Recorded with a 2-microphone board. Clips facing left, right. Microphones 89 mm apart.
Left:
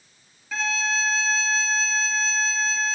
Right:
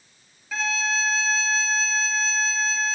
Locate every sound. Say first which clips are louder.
0.5 s a violin: even; centre (ahead or behind)